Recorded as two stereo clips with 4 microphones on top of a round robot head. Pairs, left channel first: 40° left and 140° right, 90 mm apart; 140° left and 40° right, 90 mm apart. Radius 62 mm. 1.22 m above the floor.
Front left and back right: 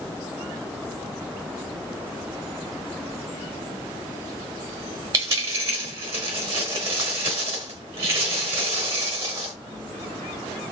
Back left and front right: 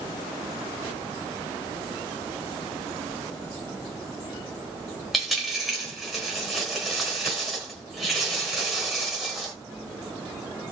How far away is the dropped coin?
About 1.0 m.